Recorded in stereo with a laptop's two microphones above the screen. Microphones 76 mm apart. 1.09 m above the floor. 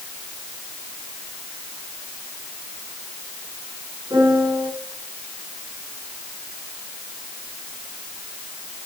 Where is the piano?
65° right (ahead or behind), 8 m.